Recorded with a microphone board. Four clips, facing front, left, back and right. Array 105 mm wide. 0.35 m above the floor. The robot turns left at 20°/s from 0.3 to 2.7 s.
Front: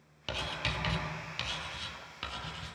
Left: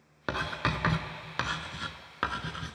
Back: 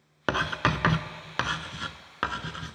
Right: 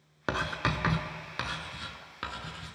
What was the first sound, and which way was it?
Writing, 175° right.